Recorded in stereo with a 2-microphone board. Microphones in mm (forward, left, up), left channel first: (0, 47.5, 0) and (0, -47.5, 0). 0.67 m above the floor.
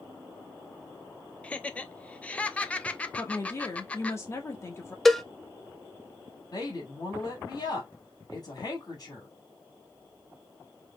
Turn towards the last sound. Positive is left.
turn(degrees=45)  # may be behind; listen again after turning